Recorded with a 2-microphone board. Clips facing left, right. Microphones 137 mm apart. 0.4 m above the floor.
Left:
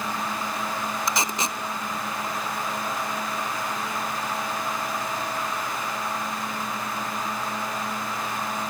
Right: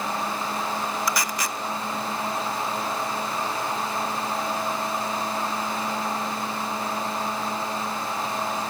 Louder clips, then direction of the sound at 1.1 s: Even; 20° left (ahead or behind).